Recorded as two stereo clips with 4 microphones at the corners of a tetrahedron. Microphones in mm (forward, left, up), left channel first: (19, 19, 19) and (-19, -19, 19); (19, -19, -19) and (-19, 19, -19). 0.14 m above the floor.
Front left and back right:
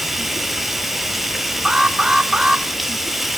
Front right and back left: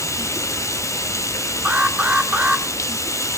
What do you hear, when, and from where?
0.0 s running water: 50° right, 0.9 m
1.6 s an alarm: 160° left, 2 m